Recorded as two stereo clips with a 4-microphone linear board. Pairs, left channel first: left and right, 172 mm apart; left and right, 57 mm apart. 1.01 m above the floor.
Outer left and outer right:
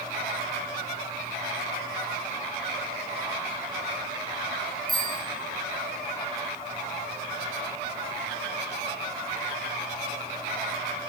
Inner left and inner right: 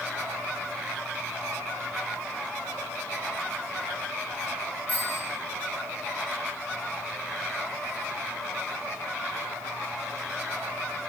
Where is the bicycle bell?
30° left (ahead or behind), 6 m.